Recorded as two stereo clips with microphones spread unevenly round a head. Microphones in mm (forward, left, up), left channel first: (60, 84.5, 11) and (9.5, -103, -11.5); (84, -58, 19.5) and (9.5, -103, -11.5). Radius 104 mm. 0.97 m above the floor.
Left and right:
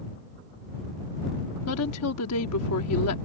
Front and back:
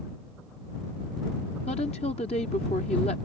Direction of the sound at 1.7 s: 85° left.